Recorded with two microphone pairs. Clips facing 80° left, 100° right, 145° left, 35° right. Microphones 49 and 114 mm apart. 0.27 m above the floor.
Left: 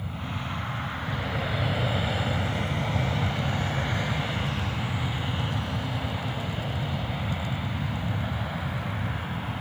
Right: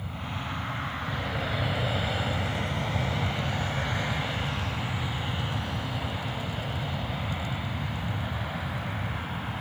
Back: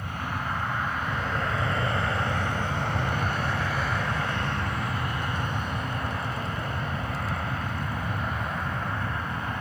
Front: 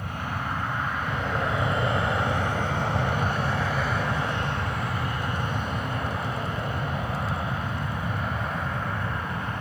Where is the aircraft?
5° right.